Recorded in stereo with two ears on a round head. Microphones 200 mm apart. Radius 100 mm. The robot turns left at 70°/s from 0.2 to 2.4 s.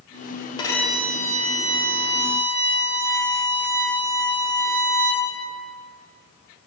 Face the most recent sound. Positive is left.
turn(degrees=-105)